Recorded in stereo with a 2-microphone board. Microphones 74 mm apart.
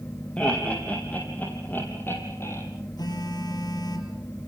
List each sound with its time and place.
0.4 s laughter: 15° left (ahead or behind), 8.5 m; by 2.6 s 40° left (ahead or behind), 7 m
3.0 s a phone buzzing: 65° left (ahead or behind), 5 m